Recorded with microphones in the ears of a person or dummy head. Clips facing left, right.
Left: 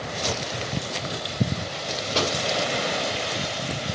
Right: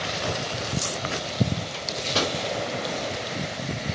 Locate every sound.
1.7 s a microwave: 30° right (ahead or behind), 2 m